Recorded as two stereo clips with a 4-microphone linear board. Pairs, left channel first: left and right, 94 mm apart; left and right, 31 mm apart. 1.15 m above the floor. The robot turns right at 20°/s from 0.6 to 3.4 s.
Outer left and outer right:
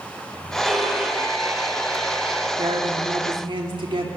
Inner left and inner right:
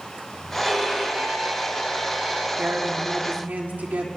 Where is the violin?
Straight behind, 7.5 m; by 2.5 s 140° right, 7.5 m.